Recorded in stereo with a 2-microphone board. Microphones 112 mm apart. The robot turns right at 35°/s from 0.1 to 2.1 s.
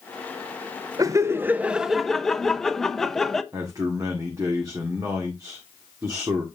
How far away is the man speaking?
About 1.3 m.